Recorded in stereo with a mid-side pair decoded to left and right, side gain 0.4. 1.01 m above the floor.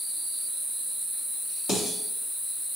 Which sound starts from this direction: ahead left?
Dishes clattering, at 1.7 s.